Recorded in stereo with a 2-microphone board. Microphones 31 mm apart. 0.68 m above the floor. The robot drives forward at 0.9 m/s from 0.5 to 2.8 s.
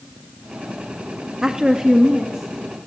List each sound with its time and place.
1.4 s a woman speaking: 20° right (ahead or behind), 0.5 m; by 2.9 s 10° right (ahead or behind), 1.3 m